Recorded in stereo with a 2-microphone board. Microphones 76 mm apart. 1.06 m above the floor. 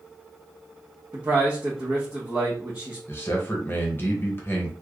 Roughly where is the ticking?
No ticking in this recording.